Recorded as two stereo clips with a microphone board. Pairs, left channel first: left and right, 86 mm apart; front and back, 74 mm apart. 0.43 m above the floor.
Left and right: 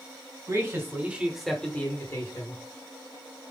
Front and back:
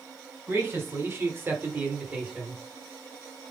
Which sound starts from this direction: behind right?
A man speaking, at 0.5 s.